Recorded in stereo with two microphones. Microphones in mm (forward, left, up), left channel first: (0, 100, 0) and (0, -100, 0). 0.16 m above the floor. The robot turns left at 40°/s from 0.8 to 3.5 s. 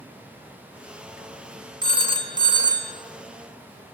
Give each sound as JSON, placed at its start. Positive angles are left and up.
{"t": 1.8, "sound": "a phone ringing", "side_deg": -25, "distance_m": 0.6}